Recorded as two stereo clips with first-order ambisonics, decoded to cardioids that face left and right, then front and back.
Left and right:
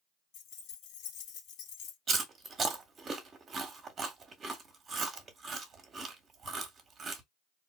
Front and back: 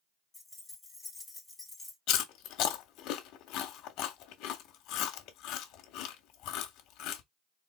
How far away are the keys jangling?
About 1.3 m.